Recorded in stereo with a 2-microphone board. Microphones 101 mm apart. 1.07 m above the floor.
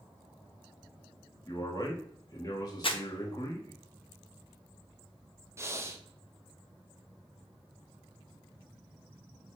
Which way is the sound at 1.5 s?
35° left (ahead or behind).